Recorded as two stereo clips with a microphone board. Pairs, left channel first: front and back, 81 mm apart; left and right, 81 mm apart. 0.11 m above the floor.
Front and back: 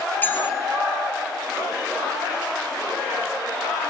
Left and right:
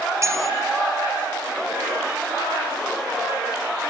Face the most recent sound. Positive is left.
turn(degrees=-60)